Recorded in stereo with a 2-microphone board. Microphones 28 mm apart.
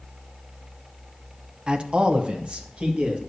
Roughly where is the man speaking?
Right.